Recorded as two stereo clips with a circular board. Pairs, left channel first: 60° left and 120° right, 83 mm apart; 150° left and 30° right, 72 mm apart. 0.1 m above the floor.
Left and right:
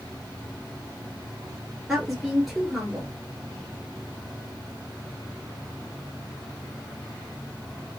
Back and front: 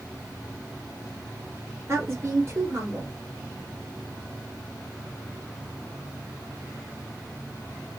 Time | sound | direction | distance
1.9 | a woman speaking | 35° right | 1.7 m